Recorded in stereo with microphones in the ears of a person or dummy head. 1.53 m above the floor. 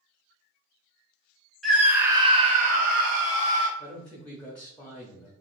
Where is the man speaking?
10° left (ahead or behind), 0.7 m.